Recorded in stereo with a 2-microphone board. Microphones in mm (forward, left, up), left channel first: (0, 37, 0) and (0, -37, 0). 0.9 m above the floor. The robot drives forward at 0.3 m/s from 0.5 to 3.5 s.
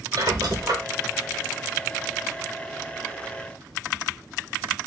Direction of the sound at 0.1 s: 65° right (ahead or behind).